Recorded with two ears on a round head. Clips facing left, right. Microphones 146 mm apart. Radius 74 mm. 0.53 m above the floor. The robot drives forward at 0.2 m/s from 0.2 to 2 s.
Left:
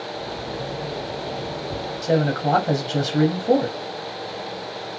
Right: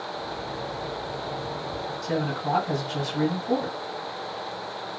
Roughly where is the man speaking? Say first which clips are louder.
Left 8 dB; left.